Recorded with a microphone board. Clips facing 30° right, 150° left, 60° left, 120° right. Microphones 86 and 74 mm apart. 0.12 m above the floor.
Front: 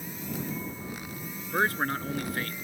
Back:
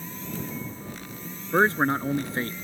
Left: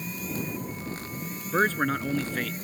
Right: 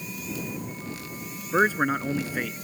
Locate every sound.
1.5 s a man speaking: 175° left